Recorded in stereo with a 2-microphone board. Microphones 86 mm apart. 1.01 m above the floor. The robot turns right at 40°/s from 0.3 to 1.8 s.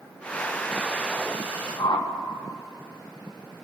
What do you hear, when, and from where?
1.8 s a whoosh: 70° left (ahead or behind), 1.3 m